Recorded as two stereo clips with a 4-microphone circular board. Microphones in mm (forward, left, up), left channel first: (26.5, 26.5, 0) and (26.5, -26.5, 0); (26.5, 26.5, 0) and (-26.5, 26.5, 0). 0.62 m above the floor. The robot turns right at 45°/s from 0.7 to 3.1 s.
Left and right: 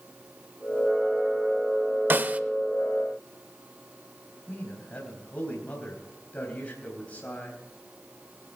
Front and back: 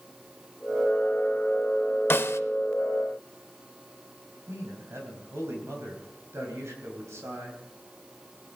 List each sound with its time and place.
2.1 s a snare drum: 45° right, 0.5 m; by 2.4 s 30° right, 0.5 m
4.5 s a man speaking: 150° left, 3.5 m